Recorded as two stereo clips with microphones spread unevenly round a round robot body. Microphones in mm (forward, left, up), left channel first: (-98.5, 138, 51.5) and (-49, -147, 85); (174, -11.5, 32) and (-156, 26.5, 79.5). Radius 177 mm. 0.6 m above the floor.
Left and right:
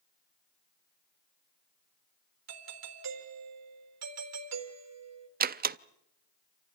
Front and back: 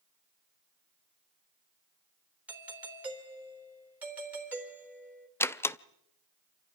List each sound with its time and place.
2.5 s a doorbell: 100° right, 3.5 m
5.4 s a door slam: 60° right, 0.7 m